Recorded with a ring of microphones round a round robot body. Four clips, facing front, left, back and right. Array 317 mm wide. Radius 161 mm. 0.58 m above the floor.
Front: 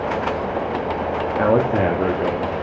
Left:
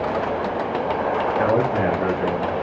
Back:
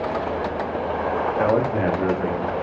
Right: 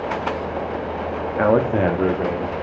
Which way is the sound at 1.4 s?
60° right.